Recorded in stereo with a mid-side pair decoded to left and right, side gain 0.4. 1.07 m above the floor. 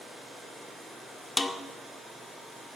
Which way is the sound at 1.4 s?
25° left.